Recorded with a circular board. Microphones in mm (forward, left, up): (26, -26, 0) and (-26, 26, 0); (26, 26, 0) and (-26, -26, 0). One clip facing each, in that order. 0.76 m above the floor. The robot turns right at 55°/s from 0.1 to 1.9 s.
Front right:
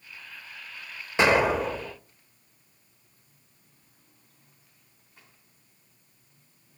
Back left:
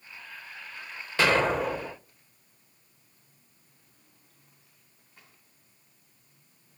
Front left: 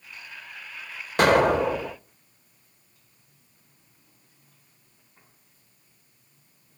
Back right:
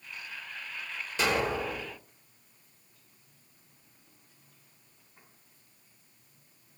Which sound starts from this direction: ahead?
An explosion, at 1.2 s.